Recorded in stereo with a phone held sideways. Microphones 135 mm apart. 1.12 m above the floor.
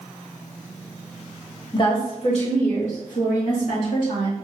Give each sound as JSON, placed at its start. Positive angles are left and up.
{"t": 1.7, "sound": "a woman speaking", "side_deg": 35, "distance_m": 1.4}